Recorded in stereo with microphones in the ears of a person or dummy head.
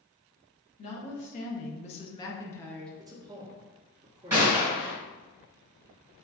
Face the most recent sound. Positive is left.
turn(degrees=-15)  # may be behind; listen again after turning